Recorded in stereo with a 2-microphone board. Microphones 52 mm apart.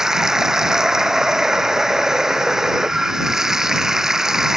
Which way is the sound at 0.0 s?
10° right (ahead or behind).